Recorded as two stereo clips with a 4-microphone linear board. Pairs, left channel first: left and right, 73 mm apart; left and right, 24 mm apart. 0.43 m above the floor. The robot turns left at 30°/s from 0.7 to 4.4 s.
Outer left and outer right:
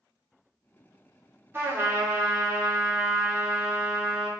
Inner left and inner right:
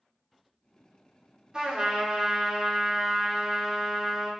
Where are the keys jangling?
No keys jangling in this recording.